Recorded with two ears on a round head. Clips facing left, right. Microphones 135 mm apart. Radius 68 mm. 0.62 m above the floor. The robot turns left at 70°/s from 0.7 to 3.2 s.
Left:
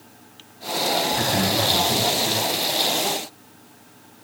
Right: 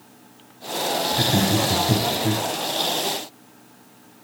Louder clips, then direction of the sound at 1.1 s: Right 2 dB; 15° right (ahead or behind).